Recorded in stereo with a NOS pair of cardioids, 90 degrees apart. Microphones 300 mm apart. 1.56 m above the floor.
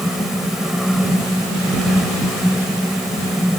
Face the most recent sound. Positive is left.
turn(degrees=0)